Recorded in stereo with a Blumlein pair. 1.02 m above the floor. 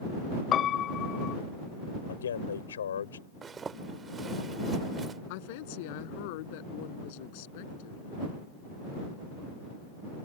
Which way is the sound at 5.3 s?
50° left.